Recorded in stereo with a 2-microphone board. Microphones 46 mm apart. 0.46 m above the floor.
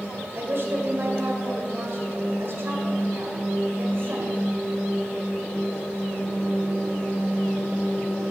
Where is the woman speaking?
60° right (ahead or behind), 1.9 m.